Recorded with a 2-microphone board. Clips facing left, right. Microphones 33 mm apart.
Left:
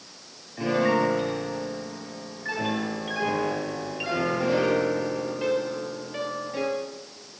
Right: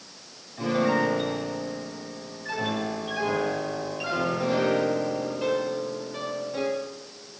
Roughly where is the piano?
Centre.